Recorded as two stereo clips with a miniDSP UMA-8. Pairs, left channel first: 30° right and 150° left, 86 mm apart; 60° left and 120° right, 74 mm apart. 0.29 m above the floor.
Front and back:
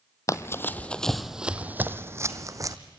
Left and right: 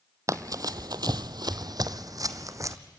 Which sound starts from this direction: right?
Running footsteps, at 0.3 s.